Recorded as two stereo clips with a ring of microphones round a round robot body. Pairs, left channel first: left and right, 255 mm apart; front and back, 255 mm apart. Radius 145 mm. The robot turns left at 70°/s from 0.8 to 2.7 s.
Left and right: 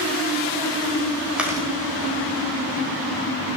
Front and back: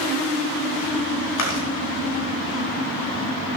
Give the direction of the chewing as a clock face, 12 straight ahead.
12 o'clock.